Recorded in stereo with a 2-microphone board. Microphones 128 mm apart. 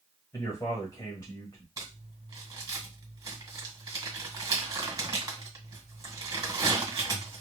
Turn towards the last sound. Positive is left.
turn(degrees=-30)  # may be behind; listen again after turning